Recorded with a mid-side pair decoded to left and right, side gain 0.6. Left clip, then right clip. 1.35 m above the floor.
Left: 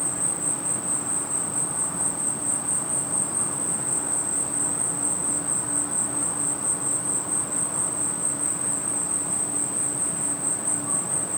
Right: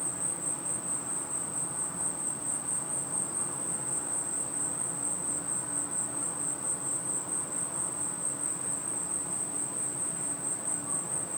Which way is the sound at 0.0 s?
40° left.